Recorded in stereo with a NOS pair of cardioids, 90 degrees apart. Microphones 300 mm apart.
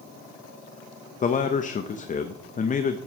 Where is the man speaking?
25° left, 0.6 m.